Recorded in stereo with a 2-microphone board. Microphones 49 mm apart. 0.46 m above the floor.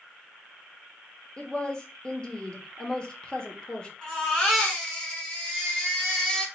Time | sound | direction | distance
1.4 | a woman speaking | 20° left (ahead or behind) | 0.8 m
4.0 | a baby crying | 20° left (ahead or behind) | 1.3 m